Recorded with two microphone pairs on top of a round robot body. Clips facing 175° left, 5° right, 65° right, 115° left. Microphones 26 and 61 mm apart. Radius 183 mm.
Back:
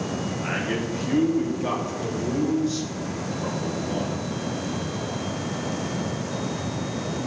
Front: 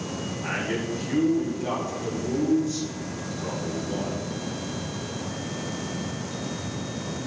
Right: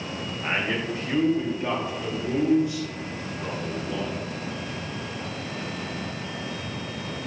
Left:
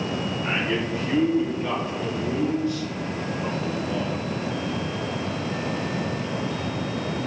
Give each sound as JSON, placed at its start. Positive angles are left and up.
{"t": 0.4, "sound": "a man speaking", "azimuth_deg": -115, "distance_m": 3.0}